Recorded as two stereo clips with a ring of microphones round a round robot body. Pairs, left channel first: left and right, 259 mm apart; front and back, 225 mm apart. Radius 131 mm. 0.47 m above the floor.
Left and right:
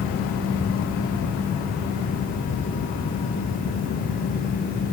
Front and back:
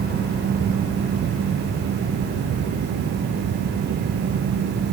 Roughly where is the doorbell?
No doorbell in this recording.